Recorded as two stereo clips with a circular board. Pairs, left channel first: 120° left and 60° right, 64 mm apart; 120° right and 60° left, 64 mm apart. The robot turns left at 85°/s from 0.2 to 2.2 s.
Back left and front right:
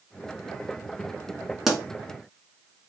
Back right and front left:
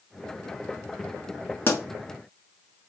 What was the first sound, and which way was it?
A pop, 140° right.